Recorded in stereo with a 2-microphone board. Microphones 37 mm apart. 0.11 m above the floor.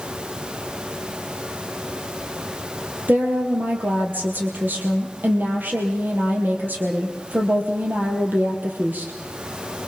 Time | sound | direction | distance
3.1 | a woman speaking | 60° right (ahead or behind) | 3.5 m